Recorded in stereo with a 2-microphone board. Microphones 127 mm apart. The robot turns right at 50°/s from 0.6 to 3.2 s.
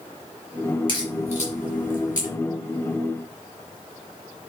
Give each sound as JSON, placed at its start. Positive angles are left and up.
{"t": 0.9, "sound": "a crack", "side_deg": 35, "distance_m": 4.5}